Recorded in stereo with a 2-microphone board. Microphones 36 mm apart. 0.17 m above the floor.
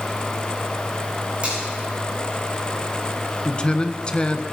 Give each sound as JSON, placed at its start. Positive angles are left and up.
{"t": 1.4, "sound": "a finger snap", "side_deg": -35, "distance_m": 9.5}
{"t": 3.5, "sound": "a man speaking", "side_deg": 30, "distance_m": 1.3}